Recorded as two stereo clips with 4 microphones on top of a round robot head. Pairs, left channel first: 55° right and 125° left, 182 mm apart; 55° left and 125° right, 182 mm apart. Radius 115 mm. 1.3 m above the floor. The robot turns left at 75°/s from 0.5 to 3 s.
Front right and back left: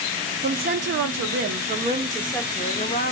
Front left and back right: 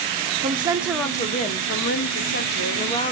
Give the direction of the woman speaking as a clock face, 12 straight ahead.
6 o'clock.